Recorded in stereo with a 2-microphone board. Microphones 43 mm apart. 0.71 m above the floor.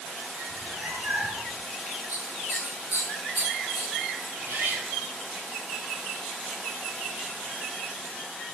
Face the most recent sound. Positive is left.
turn(degrees=-85)